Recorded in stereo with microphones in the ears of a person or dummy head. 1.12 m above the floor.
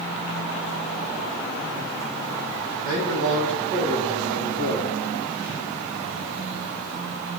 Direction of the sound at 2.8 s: 75° right (ahead or behind).